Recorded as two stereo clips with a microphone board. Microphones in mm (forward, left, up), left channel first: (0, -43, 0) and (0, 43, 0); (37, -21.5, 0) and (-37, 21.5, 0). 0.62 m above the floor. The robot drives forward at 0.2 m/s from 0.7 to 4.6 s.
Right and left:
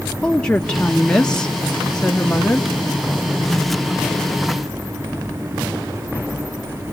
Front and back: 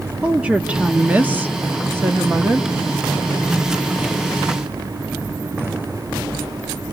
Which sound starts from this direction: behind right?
A woman speaking, at 0.2 s.